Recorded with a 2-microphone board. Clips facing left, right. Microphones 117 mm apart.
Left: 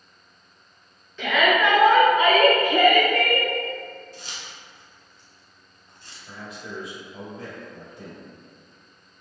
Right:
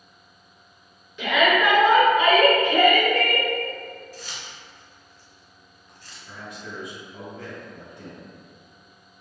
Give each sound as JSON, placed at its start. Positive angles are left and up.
{"t": 1.2, "sound": "a shout", "side_deg": -15, "distance_m": 1.4}
{"t": 4.1, "sound": "keys jangling", "side_deg": 25, "distance_m": 1.3}
{"t": 6.3, "sound": "a man speaking", "side_deg": 10, "distance_m": 1.8}